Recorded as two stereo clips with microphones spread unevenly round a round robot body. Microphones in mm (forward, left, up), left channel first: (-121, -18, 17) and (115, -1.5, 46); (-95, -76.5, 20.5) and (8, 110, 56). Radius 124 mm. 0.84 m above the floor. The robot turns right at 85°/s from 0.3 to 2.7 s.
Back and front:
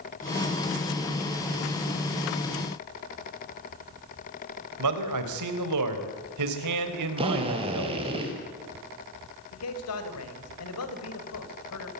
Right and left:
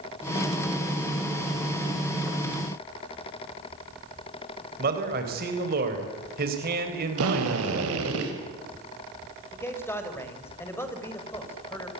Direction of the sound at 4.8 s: 10° left.